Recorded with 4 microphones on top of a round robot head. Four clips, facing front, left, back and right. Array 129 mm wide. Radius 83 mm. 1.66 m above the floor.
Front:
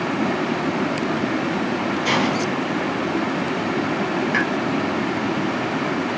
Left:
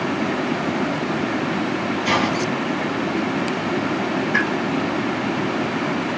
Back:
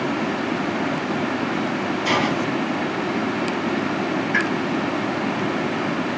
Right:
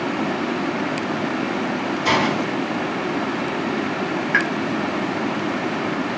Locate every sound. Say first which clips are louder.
2.0 s a hiss: right 2 dB, even; 85° right, 1.9 m
4.3 s a pop: right 2 dB, even; 65° right, 1.2 m